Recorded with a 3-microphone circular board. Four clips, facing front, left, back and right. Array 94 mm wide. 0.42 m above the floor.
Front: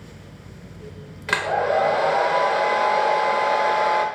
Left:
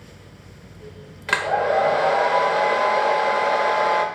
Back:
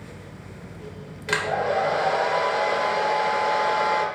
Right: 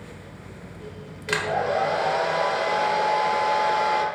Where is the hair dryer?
60° left, 1.3 m.